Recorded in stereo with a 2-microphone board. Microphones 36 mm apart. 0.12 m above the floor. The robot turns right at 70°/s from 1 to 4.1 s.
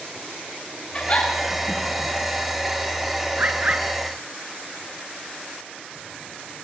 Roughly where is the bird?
Right.